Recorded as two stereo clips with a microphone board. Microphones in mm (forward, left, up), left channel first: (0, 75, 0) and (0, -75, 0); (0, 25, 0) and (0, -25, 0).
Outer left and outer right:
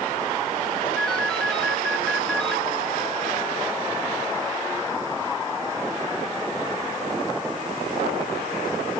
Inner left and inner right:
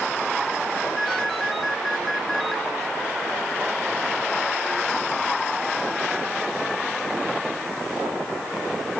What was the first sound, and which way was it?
A ringtone, 5° left (ahead or behind).